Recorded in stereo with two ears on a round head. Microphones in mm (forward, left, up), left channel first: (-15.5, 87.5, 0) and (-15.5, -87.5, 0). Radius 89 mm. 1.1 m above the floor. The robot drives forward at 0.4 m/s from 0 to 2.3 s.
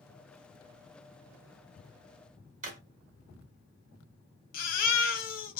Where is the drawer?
40° right (ahead or behind), 1.2 m.